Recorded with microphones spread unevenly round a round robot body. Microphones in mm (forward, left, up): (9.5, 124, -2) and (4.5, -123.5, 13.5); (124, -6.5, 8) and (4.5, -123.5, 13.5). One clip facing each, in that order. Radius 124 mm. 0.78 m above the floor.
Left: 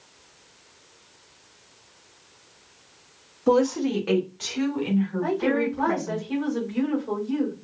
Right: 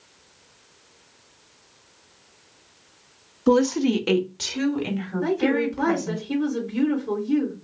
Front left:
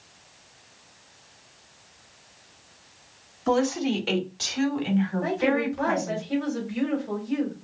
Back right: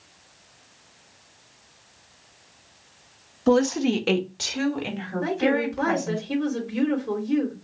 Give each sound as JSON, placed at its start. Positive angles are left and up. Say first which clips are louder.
{"t": 3.5, "sound": "a woman speaking", "louder": "right 2 dB, back right 4 dB", "azimuth_deg": -145, "distance_m": 0.8}
{"t": 5.2, "sound": "a woman speaking", "louder": "right 2 dB, back right 1 dB", "azimuth_deg": -135, "distance_m": 3.5}